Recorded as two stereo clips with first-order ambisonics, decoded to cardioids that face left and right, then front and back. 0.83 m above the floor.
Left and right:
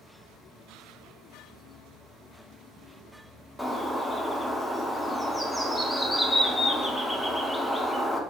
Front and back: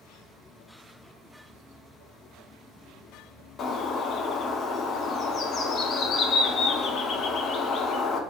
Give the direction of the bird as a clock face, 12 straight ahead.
12 o'clock.